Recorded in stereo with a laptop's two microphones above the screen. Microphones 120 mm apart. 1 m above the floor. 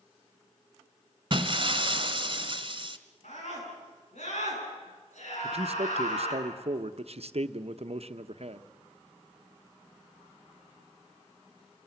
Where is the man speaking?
55° right (ahead or behind), 0.9 m.